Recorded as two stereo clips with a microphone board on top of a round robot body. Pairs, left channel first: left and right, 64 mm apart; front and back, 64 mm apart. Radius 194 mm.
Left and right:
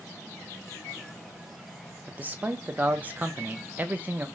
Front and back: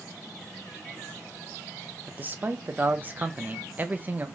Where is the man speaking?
135° right, 0.6 m.